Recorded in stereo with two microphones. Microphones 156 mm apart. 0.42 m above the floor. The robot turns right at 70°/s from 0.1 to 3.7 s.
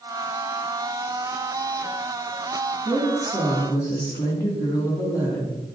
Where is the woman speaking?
35° right, 3 m; by 5.6 s 25° left, 3 m.